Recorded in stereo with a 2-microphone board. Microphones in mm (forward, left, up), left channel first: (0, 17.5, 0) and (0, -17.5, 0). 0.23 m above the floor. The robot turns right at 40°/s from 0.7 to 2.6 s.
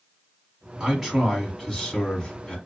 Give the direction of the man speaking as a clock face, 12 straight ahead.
1 o'clock.